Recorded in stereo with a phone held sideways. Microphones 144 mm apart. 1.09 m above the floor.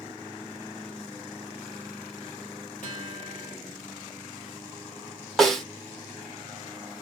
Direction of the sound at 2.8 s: 65° left (ahead or behind).